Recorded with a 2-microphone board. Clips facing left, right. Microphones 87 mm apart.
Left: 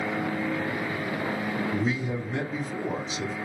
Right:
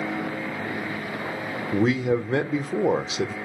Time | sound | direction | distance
1.7 | a man speaking | 85° right | 0.8 m